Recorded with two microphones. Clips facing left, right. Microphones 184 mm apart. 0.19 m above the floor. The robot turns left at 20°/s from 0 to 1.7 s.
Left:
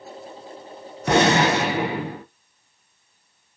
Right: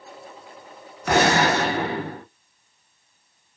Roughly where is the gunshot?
Left.